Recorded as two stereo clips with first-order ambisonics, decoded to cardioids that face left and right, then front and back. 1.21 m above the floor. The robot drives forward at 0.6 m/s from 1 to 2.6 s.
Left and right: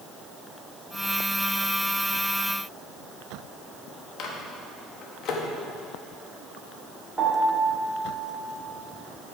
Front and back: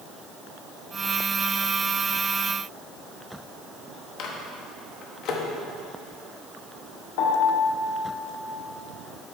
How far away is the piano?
About 1.4 m.